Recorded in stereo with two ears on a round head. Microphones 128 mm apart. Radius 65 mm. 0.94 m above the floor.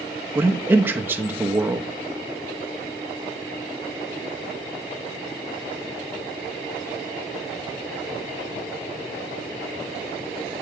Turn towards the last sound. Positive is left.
turn(degrees=-15)  # may be behind; listen again after turning